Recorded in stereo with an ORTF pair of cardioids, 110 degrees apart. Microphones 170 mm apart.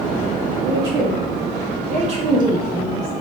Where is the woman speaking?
70° right, 1.7 m; by 3.1 s 5° left, 0.9 m.